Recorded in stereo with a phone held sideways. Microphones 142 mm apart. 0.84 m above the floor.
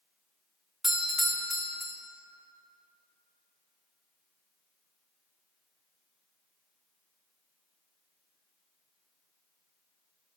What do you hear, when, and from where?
0.8 s a doorbell: centre (ahead or behind), 1.1 m